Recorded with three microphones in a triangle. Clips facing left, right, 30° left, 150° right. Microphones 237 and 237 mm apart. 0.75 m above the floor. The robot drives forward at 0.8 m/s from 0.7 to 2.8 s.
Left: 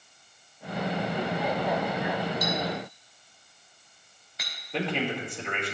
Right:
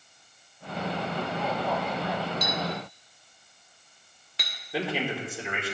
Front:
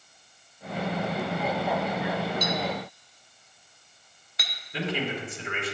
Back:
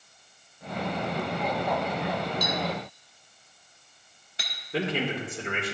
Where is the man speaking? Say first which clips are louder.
Even, back 2 dB; 175° right, 1.8 m.